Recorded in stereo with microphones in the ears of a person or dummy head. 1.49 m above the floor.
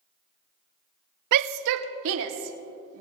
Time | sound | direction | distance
1.3 | a shout | 55° right (ahead or behind) | 0.5 m